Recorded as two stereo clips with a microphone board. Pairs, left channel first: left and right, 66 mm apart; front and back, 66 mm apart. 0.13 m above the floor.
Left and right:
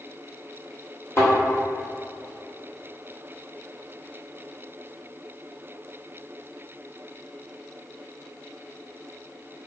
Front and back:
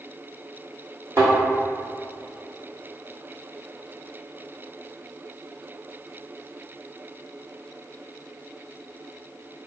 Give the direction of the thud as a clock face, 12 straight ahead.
8 o'clock.